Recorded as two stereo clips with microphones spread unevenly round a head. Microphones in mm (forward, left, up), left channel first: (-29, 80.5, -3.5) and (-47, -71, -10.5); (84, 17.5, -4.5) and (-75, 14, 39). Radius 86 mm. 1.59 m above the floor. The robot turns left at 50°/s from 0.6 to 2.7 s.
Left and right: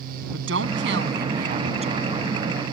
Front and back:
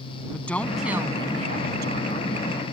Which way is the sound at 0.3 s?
85° right.